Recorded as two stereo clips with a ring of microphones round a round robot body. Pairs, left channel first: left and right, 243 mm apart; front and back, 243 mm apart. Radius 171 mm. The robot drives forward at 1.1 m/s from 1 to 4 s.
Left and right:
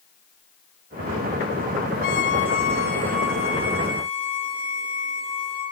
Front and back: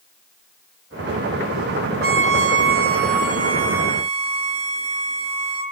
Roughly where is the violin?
Behind left.